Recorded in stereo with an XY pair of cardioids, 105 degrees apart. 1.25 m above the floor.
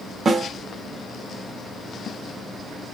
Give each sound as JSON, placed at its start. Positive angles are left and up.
{"t": 0.2, "sound": "a snare drum", "azimuth_deg": -35, "distance_m": 0.6}